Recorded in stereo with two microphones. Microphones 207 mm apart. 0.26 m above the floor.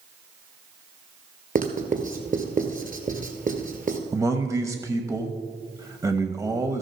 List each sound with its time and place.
1.6 s writing: 40° right (ahead or behind), 1.5 m
4.1 s a man speaking: 15° right (ahead or behind), 0.9 m